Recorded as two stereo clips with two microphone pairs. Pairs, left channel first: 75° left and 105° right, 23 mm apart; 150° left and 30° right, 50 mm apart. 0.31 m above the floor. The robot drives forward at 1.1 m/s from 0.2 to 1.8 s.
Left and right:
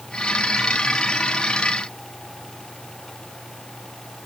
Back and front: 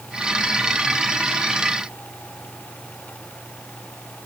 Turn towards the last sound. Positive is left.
No sound to turn to.